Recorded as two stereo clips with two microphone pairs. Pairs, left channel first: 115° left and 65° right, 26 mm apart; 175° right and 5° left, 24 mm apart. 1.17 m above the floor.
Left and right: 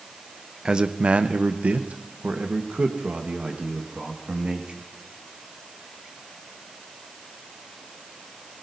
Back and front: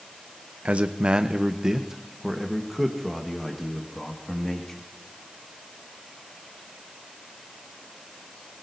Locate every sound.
0.7 s a man speaking: 15° right, 0.7 m; by 4.9 s 95° right, 2.5 m